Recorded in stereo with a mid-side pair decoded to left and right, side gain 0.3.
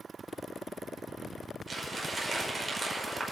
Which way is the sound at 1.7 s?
35° right.